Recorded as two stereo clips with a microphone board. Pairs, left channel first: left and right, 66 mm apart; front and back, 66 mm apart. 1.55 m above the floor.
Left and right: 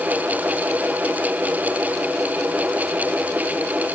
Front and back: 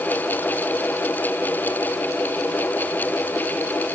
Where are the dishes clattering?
No dishes clattering in this recording.